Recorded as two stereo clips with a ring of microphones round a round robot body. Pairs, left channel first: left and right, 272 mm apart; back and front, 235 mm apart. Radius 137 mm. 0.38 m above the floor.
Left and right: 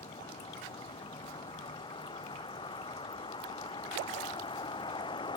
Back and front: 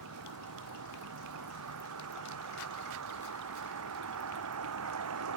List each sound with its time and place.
0.0 s a vehicle: 15° left